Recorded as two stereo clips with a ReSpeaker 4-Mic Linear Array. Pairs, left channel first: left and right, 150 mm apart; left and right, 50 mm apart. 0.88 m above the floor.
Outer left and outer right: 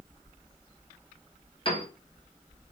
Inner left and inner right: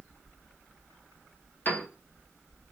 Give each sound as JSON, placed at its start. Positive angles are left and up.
{"t": 1.6, "sound": "a piano", "side_deg": 35, "distance_m": 0.6}